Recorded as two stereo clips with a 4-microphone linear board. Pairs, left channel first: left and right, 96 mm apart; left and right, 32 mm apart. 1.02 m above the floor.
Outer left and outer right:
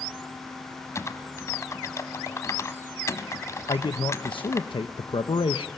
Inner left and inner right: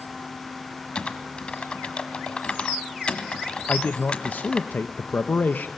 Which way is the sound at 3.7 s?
65° left (ahead or behind).